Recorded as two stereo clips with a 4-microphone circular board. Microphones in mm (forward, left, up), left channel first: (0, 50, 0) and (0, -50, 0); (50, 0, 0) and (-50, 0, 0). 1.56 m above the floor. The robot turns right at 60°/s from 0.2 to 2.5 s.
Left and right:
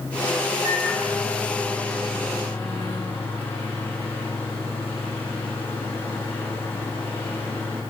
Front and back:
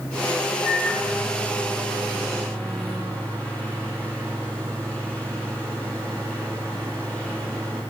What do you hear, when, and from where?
0.6 s a microwave: 40° right, 1.8 m; by 7.8 s 75° left, 1.8 m